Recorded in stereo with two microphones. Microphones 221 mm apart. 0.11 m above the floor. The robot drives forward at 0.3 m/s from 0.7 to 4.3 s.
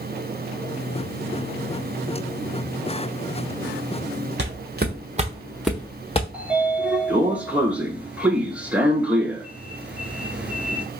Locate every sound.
4.4 s footsteps: 60° right (ahead or behind), 1.3 m; by 6.2 s 30° left (ahead or behind), 0.9 m
6.3 s a sliding door: 5° right (ahead or behind), 0.6 m